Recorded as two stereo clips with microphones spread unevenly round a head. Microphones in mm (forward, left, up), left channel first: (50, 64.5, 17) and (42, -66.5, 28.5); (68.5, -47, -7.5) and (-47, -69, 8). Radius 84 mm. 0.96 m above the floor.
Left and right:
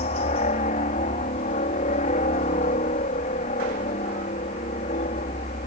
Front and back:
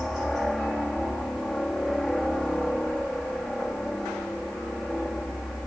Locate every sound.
0.0 s a helicopter: 100° left